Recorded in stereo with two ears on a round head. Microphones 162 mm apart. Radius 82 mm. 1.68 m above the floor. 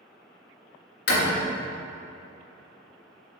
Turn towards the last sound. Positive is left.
turn(degrees=65)  # may be behind; listen again after turning